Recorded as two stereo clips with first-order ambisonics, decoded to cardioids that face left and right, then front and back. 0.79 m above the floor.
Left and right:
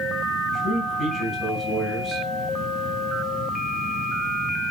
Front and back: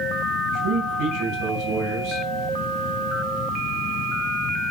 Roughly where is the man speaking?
Behind left.